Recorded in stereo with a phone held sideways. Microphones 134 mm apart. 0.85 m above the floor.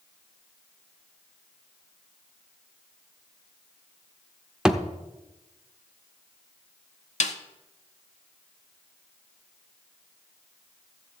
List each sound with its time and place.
4.7 s a thud: 5° right (ahead or behind), 0.6 m
7.2 s a snare drum: 65° left (ahead or behind), 0.8 m